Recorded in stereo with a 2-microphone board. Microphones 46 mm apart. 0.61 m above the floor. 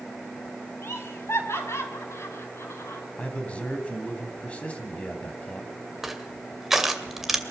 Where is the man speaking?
30° left (ahead or behind), 4 m.